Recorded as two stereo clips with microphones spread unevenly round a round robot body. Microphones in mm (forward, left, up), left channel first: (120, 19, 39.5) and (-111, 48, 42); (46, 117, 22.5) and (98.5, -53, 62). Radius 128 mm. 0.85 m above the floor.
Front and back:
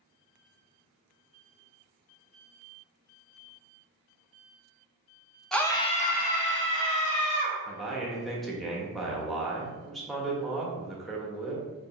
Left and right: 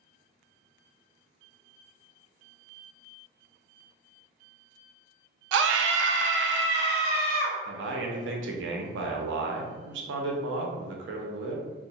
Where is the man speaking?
95° right, 0.7 m.